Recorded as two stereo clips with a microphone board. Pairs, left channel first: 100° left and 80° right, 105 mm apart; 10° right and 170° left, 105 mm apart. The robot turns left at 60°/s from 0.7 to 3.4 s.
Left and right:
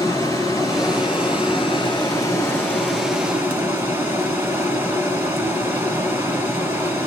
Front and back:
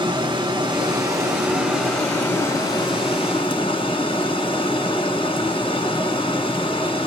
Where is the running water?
145° left, 1.9 m; by 7.1 s 15° right, 1.9 m.